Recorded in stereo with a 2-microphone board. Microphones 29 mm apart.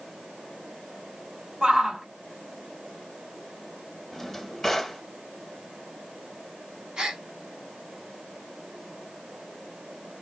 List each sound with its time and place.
1.6 s a shout: 25° right (ahead or behind), 1.9 m
4.1 s a drawer: 5° left (ahead or behind), 1.0 m
7.0 s a gasp: 25° right (ahead or behind), 1.4 m